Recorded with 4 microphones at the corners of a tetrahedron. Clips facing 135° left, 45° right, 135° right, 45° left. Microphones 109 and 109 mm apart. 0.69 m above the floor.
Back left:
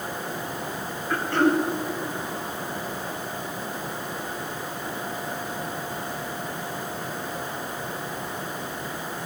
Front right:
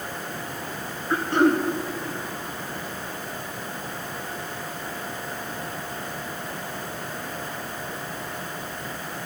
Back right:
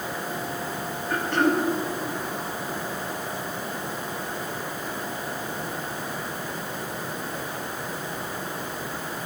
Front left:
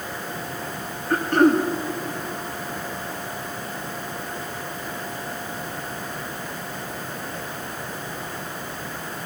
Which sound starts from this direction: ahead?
Throat clearing, at 1.1 s.